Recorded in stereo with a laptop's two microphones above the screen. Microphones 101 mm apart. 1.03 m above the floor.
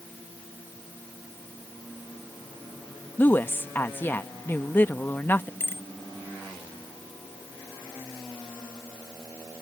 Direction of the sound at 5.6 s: 20° left (ahead or behind).